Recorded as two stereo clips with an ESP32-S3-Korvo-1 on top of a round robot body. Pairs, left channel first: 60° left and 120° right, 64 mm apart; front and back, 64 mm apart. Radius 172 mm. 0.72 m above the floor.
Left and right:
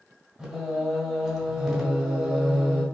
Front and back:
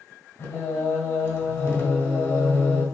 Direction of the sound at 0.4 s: 35° right.